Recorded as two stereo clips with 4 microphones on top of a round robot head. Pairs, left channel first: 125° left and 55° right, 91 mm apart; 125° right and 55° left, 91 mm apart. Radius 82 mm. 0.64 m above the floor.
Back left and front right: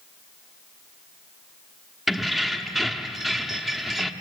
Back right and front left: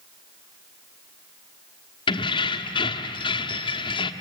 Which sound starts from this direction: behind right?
Keys jangling, at 2.1 s.